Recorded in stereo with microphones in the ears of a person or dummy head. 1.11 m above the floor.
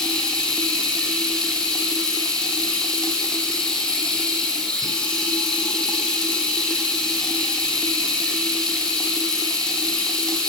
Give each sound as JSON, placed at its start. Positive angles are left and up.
{"t": 0.0, "sound": "running water", "side_deg": 5, "distance_m": 5.5}